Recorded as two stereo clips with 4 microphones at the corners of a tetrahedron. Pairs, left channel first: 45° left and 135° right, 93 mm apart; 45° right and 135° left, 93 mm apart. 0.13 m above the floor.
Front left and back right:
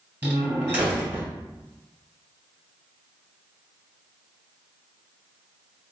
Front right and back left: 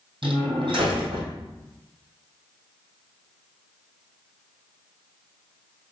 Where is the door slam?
155° left, 2.5 m.